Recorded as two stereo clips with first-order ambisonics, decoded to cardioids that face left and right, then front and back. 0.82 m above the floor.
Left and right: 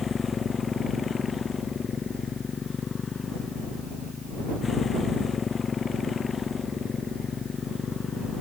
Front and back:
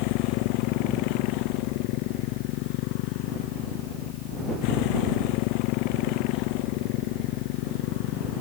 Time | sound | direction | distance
0.0 | a motorcycle | 20° left | ?